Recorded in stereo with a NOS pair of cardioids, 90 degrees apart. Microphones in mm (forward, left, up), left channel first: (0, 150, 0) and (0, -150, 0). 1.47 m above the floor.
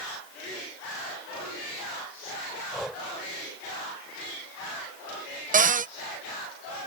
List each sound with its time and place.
2.7 s breathing: straight ahead
5.5 s a cupboard door: 25° right